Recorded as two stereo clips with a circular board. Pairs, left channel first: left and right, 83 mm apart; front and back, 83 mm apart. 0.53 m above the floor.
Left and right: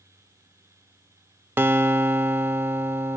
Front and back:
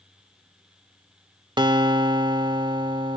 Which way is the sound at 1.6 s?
155° right.